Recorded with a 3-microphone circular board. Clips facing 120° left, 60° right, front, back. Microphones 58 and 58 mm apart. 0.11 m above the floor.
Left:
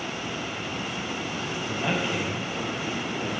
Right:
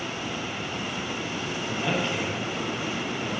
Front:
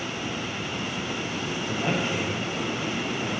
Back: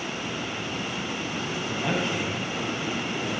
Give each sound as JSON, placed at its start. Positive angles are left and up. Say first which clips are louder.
{"t": 1.7, "sound": "a man speaking", "louder": "even, even", "azimuth_deg": 50, "distance_m": 3.0}